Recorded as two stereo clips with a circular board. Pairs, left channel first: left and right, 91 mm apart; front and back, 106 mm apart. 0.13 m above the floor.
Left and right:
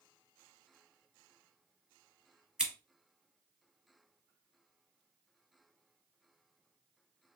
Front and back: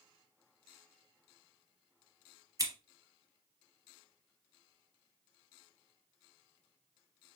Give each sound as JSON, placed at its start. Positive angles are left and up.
{"t": 2.6, "sound": "scissors", "azimuth_deg": -165, "distance_m": 1.7}